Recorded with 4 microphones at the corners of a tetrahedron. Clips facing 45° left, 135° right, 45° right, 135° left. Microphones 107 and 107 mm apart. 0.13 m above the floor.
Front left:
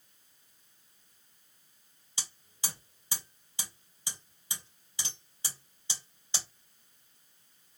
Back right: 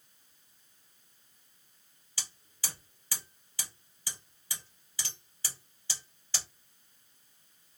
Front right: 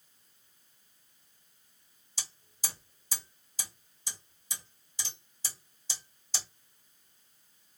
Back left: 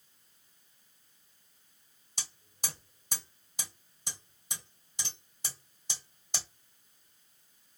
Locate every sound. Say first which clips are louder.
2.2 s hammering: front left 2 dB, back left 1 dB; 115° left, 2.5 m